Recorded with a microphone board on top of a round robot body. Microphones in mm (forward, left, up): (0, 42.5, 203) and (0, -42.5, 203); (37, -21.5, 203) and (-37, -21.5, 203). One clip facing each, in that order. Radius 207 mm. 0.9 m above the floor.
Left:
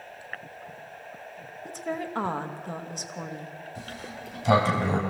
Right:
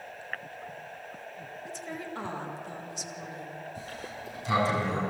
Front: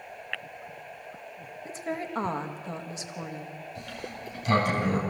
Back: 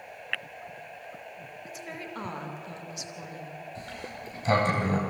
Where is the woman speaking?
55° left, 2 m.